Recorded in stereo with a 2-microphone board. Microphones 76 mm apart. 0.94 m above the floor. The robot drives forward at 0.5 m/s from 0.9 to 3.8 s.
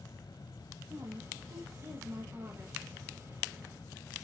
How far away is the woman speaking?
About 1.1 m.